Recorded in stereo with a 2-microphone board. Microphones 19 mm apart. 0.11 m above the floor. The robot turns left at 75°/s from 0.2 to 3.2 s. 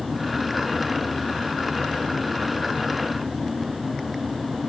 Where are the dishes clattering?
I don't hear dishes clattering.